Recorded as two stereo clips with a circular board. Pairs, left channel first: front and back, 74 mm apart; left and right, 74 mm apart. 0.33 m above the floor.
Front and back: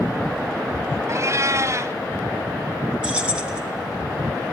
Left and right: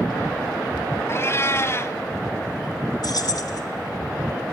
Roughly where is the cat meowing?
Behind left.